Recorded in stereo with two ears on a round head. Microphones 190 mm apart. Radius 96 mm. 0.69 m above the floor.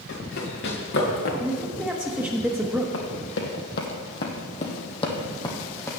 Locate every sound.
0.1 s running footsteps: 55° left (ahead or behind), 3.5 m; by 1.3 s 50° left (ahead or behind), 2.5 m
1.4 s a man speaking: 10° right (ahead or behind), 0.9 m
2.9 s running footsteps: 60° left (ahead or behind), 1.7 m; by 5.9 s 15° left (ahead or behind), 1.8 m